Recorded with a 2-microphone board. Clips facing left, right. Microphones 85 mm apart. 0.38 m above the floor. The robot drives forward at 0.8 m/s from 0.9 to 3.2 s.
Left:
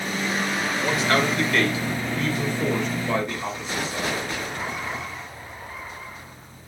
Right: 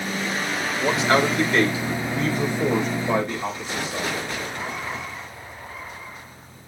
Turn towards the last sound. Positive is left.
turn(degrees=-20)  # may be behind; listen again after turning